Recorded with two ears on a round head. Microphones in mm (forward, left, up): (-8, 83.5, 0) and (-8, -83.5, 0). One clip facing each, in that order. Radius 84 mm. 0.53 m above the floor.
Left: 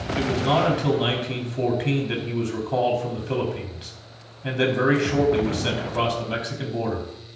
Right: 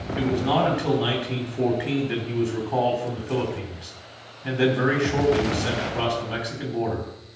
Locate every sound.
0.2 s a man speaking: 45° left (ahead or behind), 3.5 m